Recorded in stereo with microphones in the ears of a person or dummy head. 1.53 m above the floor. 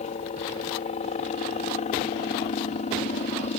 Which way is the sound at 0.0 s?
40° left (ahead or behind).